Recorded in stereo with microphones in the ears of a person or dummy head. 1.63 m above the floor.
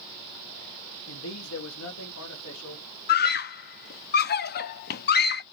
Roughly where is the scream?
Left.